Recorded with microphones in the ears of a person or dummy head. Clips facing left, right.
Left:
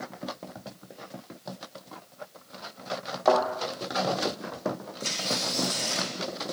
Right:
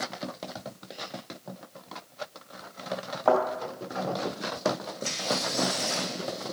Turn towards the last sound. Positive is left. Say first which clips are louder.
# right 1 dB
turn(degrees=70)  # may be behind; listen again after turning